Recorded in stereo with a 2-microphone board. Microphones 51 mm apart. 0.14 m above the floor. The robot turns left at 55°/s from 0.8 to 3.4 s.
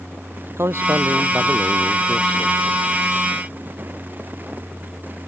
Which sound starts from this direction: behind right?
A man speaking, at 0.6 s.